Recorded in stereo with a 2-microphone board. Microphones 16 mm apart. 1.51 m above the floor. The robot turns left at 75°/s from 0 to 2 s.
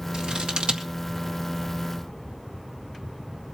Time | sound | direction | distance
0.1 | scissors | 60° right (ahead or behind) | 1.7 m